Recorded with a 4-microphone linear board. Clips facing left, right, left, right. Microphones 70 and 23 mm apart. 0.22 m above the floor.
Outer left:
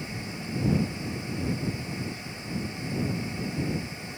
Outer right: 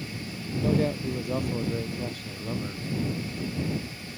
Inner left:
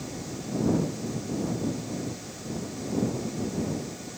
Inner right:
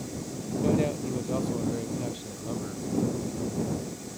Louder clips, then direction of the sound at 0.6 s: Outer right 3 dB, inner right 2 dB; 75° right (ahead or behind).